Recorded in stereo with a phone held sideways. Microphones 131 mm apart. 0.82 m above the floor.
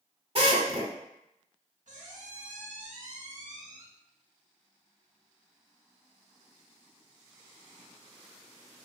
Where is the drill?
45° right (ahead or behind), 0.8 m.